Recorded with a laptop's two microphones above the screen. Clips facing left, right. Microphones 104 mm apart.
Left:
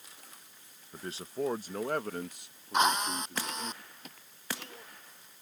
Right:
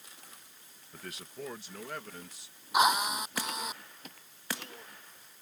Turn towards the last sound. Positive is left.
turn(degrees=-10)  # may be behind; listen again after turning